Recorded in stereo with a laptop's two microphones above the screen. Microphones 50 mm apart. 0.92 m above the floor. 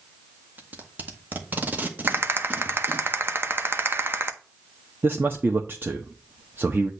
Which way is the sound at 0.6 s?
35° right (ahead or behind).